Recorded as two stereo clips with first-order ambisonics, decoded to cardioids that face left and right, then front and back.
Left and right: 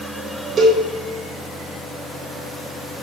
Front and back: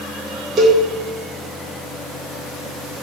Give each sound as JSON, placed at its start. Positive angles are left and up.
{"t": 0.6, "sound": "a cowbell", "azimuth_deg": -140, "distance_m": 0.9}